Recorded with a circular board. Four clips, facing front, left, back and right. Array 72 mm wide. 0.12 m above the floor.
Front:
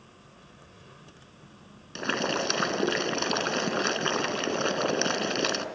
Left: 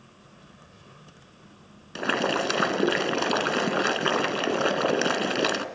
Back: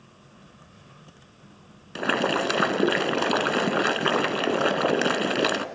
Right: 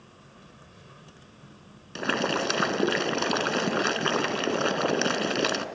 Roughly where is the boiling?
Behind.